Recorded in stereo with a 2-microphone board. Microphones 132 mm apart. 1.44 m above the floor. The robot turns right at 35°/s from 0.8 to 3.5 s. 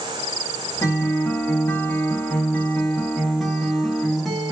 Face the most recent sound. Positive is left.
turn(degrees=0)  # may be behind; listen again after turning